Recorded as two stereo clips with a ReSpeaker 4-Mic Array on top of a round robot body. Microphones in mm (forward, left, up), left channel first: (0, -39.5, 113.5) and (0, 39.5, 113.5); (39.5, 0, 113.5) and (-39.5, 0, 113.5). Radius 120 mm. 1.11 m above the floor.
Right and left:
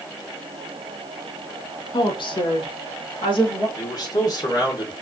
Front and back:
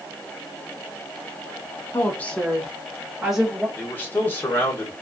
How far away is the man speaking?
About 1.5 m.